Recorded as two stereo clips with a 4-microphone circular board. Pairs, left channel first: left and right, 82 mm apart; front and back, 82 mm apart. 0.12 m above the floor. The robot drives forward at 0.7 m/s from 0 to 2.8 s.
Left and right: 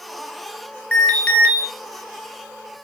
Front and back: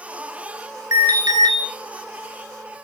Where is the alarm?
160° left, 1.9 m; by 1.6 s 165° left, 2.5 m.